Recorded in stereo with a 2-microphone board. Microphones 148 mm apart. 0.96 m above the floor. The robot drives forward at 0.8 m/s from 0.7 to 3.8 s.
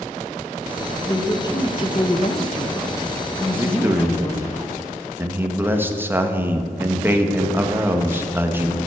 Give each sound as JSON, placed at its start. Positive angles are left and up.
{"t": 1.0, "sound": "a woman speaking", "side_deg": 25, "distance_m": 1.3}
{"t": 3.5, "sound": "a man speaking", "side_deg": -15, "distance_m": 1.1}